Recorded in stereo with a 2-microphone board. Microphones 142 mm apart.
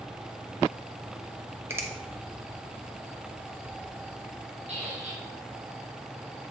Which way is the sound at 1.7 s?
20° right (ahead or behind).